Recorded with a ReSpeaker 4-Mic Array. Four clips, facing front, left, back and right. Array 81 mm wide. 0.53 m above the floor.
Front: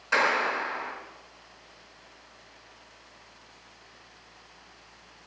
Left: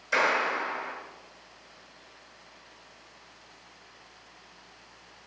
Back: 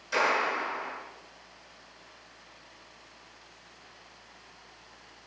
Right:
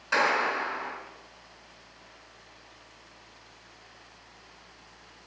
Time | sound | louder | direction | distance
0.1 | a clap | right 1 dB, front 2 dB | 40° right | 5.5 m